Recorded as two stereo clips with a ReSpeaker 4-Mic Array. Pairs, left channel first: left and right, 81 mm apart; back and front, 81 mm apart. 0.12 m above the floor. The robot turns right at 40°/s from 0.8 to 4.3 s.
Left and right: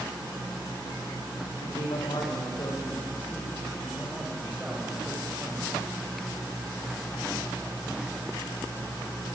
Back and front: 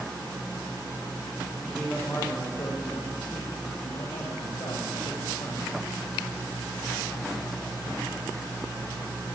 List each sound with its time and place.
1.6 s a man speaking: 90° left, 8 m; by 5.7 s 160° right, 8 m